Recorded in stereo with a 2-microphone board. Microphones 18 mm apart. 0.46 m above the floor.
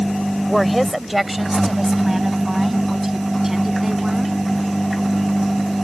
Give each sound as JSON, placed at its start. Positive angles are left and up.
{"t": 0.5, "sound": "a woman speaking", "side_deg": 0}